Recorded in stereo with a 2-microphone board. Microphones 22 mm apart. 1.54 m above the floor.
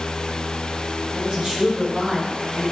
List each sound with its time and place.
1.1 s a woman speaking: 40° right (ahead or behind), 2 m